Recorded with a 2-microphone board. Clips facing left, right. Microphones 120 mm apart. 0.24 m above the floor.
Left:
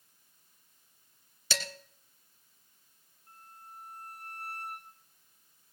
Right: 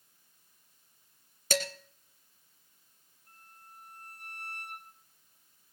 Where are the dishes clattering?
50° right (ahead or behind), 2.5 m.